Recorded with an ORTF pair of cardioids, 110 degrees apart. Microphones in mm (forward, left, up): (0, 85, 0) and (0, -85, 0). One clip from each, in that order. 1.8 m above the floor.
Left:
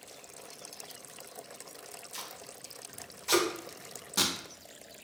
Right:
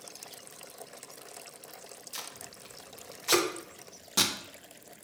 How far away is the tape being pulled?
About 0.5 m.